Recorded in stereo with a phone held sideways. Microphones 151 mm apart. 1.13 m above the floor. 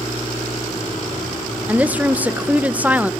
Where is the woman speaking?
10° right (ahead or behind), 0.6 m.